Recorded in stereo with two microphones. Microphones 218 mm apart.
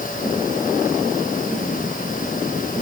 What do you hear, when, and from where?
Only background noise.